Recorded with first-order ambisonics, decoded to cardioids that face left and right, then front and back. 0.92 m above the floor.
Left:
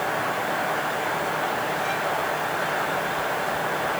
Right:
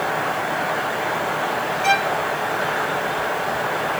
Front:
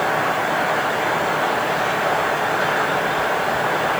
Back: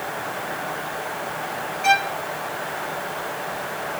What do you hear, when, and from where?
1.8 s a violin: 135° right